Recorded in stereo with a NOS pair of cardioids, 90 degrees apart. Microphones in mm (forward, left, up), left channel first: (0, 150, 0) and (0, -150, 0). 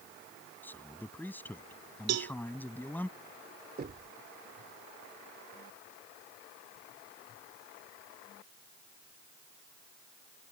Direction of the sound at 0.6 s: 5° left.